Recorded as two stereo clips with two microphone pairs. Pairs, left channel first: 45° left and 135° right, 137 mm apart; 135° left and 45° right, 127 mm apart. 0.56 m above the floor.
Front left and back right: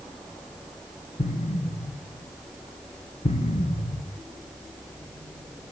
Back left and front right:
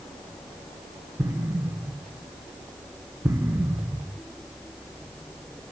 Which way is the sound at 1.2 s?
25° left.